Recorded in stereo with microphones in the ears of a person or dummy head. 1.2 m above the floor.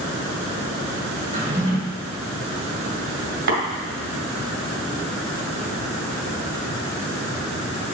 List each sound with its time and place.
1.3 s a drawer: 25° right (ahead or behind), 3.5 m
3.5 s tapping: 65° right (ahead or behind), 1.9 m